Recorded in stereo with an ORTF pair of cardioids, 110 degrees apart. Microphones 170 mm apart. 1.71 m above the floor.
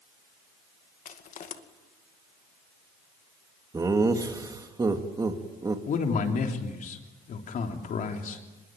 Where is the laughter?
20° right, 2.5 m.